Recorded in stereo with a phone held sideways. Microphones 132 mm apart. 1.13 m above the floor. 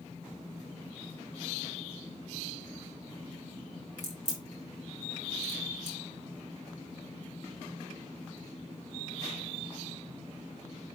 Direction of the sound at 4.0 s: 60° left (ahead or behind).